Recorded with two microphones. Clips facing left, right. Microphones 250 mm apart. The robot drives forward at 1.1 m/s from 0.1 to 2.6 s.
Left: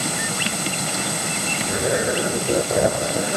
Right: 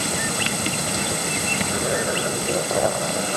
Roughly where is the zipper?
Centre.